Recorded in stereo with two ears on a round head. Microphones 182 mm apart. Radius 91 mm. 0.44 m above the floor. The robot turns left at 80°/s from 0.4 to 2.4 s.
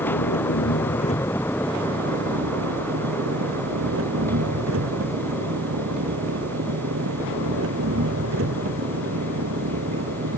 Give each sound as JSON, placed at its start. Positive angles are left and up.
{"t": 0.0, "sound": "an engine running", "azimuth_deg": 90}